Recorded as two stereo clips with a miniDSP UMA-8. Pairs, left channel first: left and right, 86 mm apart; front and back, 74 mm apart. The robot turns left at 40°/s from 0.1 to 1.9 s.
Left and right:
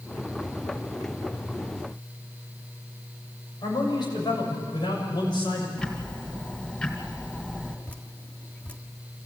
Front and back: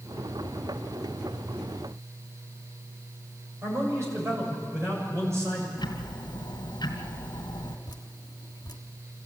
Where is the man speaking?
125° left, 7 m.